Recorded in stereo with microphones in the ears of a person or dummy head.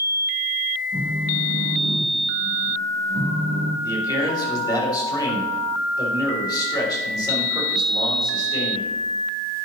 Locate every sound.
0.9 s a phone buzzing: 25° left (ahead or behind), 2 m
3.8 s a man speaking: 25° left (ahead or behind), 3 m